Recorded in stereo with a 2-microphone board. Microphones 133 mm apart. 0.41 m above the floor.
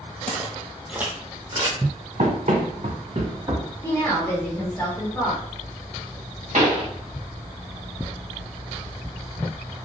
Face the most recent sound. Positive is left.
turn(degrees=-60)  # may be behind; listen again after turning